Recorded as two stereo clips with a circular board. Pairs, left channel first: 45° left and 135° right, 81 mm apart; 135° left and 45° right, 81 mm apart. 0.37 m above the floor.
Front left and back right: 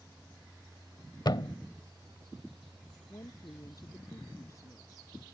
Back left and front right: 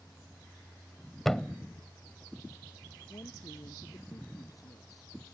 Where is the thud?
50° left.